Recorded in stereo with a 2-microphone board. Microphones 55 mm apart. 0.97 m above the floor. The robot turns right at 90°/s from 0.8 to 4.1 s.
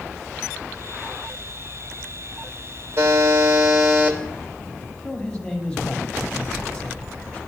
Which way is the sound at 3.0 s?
130° right.